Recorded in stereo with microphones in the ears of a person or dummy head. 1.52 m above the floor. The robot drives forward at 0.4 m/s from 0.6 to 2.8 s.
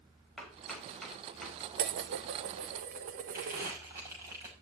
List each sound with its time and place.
0.4 s chopping: 5° left (ahead or behind), 6 m
1.8 s dishes clattering: 50° right (ahead or behind), 1.0 m; by 3.8 s 40° right (ahead or behind), 1.2 m
3.3 s crumpling: 15° right (ahead or behind), 7 m